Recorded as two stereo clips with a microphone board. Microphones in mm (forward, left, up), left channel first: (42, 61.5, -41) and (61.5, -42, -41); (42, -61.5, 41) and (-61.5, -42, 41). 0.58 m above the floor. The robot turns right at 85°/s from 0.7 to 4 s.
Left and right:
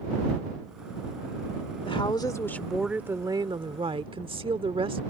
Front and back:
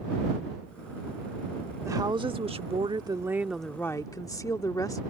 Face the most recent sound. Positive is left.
turn(degrees=-65)